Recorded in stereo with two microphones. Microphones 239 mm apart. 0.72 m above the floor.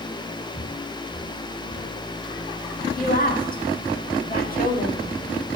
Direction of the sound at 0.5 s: 85° left.